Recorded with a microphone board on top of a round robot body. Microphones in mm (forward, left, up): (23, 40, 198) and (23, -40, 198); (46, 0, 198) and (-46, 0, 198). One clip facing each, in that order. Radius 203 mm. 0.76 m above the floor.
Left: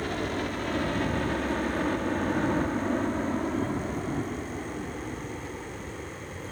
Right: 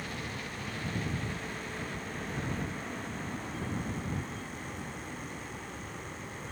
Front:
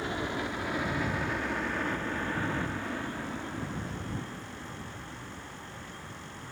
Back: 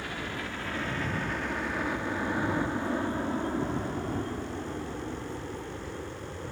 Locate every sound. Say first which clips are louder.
0.0 s a helicopter: left 10 dB, front 3 dB; 65° left; by 6.5 s 160° left